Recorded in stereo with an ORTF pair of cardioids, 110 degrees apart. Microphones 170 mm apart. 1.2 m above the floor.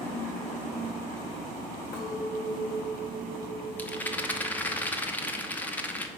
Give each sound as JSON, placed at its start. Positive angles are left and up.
{"t": 1.9, "sound": "a clink", "azimuth_deg": 65, "distance_m": 3.5}
{"t": 3.8, "sound": "a rattle", "azimuth_deg": 10, "distance_m": 0.9}